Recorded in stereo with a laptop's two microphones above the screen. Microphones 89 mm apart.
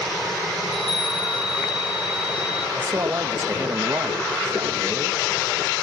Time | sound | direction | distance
0.6 | a chime | 75° right (ahead or behind) | 1.8 m
2.8 | a man speaking | 40° right (ahead or behind) | 1.1 m